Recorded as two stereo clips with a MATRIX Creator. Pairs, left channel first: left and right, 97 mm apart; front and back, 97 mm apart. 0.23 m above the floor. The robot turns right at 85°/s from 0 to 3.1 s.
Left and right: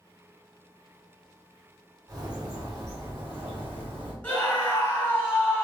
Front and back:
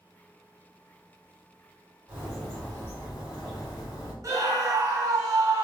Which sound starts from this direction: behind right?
A bird, at 2.1 s.